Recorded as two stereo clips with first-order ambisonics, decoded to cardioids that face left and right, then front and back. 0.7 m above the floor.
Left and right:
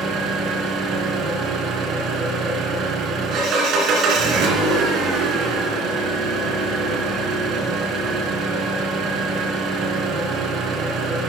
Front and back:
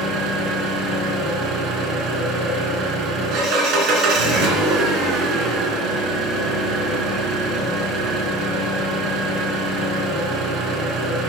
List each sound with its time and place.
0.0 s an engine running: 140° right, 2.5 m